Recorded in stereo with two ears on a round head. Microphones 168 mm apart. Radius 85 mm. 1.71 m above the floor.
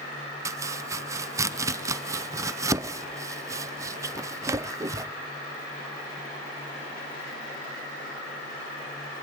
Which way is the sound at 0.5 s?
15° right (ahead or behind).